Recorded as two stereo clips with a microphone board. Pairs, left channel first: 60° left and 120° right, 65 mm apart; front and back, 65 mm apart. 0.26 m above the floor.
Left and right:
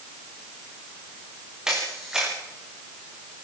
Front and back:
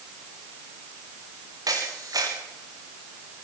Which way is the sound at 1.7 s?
160° left.